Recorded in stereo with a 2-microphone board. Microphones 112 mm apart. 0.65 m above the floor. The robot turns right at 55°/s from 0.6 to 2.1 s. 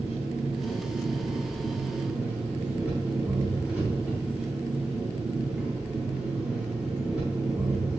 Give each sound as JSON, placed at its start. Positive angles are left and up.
{"t": 0.0, "sound": "an engine running", "azimuth_deg": 105, "distance_m": 4.0}